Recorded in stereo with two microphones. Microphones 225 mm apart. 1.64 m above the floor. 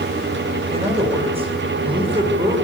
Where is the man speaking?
25° right (ahead or behind), 7.5 m.